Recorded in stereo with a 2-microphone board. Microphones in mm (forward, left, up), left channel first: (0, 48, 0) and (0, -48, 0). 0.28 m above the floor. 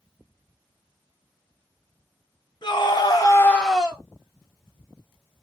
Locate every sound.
2.6 s a scream: 50° left (ahead or behind), 1.7 m; by 4.0 s 20° right (ahead or behind), 1.0 m